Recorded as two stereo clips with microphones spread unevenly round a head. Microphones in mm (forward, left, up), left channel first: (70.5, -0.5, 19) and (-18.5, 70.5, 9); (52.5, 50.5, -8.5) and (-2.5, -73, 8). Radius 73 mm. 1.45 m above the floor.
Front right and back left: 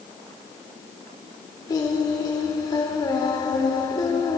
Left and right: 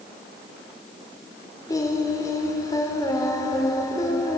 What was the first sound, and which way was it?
Singing, straight ahead.